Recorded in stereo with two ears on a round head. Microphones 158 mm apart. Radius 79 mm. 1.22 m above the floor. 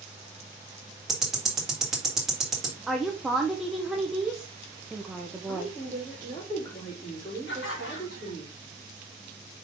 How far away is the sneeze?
No sneeze in this recording.